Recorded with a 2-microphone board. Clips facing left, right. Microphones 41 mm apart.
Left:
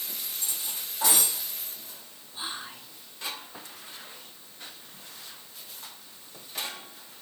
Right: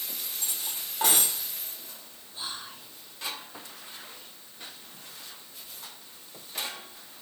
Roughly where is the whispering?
Left.